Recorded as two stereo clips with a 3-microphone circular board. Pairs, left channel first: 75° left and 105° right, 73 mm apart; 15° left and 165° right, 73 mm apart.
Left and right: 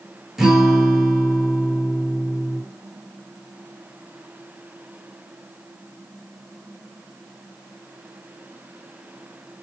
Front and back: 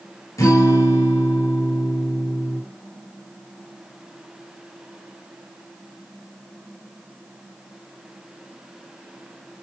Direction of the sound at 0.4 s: 20° right.